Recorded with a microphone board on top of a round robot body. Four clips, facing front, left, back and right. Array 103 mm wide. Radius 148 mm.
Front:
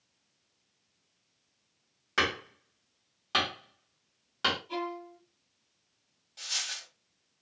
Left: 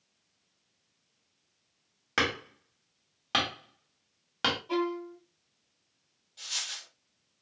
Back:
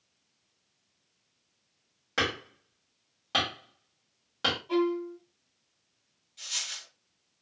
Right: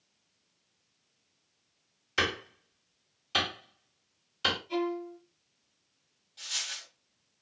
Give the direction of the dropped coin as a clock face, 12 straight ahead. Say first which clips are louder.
Even, front 2 dB; 12 o'clock.